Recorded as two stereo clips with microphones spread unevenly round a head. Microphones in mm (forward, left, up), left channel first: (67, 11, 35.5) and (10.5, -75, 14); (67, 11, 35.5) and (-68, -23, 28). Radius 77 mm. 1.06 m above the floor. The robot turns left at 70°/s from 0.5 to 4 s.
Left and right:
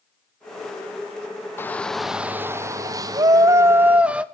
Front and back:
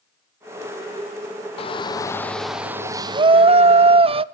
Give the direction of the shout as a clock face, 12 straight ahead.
1 o'clock.